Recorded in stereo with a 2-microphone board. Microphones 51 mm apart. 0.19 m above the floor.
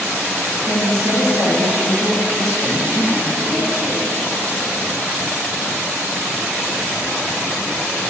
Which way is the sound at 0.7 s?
70° right (ahead or behind).